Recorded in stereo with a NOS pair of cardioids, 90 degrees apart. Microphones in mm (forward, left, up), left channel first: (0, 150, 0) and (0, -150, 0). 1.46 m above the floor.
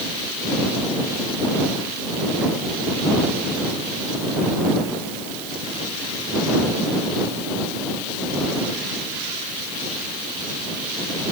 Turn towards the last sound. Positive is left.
No sound to turn to.